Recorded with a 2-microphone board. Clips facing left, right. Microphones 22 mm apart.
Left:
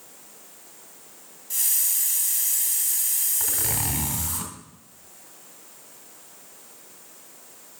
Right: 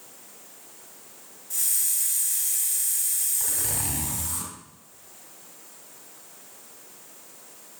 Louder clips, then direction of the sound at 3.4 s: Left 2 dB; 30° left (ahead or behind).